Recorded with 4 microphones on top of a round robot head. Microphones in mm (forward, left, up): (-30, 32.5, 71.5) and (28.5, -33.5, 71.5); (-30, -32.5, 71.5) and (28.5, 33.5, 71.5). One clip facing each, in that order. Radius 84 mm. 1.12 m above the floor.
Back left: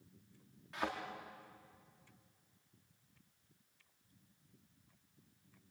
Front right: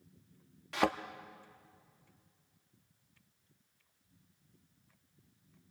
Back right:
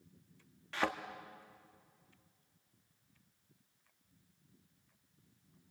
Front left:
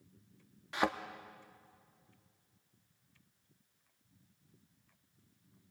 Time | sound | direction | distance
0.7 | a thud | 25° right | 0.7 m